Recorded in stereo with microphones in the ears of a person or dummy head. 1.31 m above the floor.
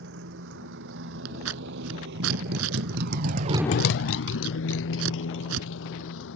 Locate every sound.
0.0 s a motorcycle: 65° right (ahead or behind); by 6.4 s 70° left (ahead or behind)
1.2 s scissors: 80° right